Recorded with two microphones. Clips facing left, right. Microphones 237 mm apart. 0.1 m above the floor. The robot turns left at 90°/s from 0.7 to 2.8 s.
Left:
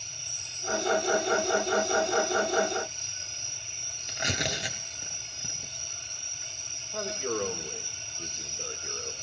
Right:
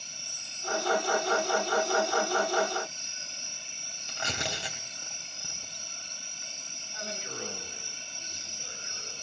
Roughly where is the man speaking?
Left.